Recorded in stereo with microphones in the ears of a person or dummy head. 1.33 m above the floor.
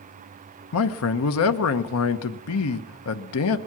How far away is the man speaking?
About 0.8 m.